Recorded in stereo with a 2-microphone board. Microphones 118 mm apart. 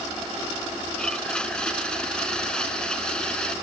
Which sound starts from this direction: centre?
A blender, at 1.0 s.